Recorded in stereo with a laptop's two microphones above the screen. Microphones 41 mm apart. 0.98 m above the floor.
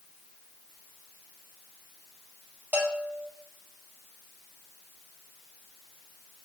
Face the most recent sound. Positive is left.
turn(degrees=-45)  # may be behind; listen again after turning